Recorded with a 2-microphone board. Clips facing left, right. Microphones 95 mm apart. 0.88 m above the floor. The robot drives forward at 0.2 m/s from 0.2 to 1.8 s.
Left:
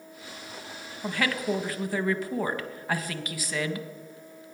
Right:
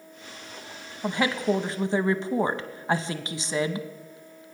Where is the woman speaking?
20° right (ahead or behind), 0.6 m; by 3.9 s 25° right (ahead or behind), 0.5 m.